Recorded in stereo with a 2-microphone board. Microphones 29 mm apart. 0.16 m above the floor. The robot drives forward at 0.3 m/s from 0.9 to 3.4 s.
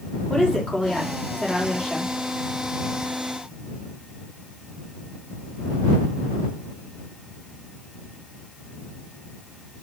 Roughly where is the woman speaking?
Left.